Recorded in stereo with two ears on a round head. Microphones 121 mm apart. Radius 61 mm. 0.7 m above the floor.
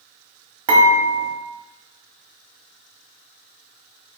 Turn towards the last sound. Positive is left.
turn(degrees=-40)  # may be behind; listen again after turning